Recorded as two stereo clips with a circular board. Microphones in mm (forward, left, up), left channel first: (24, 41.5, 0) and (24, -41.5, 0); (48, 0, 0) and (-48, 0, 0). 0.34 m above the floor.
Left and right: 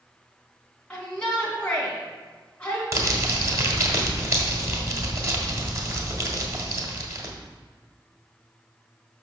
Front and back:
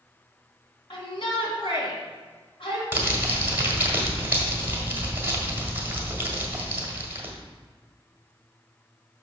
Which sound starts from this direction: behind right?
Crumpling, at 2.9 s.